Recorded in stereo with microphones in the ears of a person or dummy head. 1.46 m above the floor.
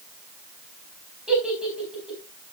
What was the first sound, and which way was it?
A giggle, 5° right (ahead or behind).